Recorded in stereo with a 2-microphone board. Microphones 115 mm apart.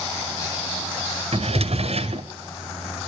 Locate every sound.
1.3 s a drawer: 60° right (ahead or behind), 1.5 m